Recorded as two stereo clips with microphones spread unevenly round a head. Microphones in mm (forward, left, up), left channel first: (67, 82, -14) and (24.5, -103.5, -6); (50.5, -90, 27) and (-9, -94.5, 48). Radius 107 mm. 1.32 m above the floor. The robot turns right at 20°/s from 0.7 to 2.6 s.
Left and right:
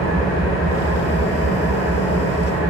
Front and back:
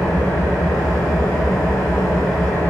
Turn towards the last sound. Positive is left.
turn(degrees=100)